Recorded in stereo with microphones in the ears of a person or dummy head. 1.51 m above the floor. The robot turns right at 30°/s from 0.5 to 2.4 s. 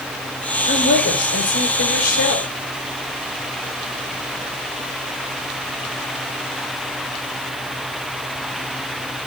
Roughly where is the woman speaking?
Ahead left.